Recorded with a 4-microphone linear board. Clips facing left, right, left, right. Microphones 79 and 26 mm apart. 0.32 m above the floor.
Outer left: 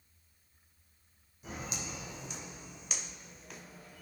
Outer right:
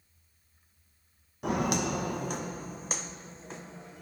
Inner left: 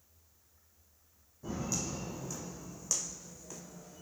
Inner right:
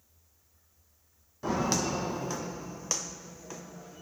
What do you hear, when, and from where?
1.4 s footsteps: 75° right (ahead or behind), 0.9 m; by 4.0 s 25° right (ahead or behind), 1.6 m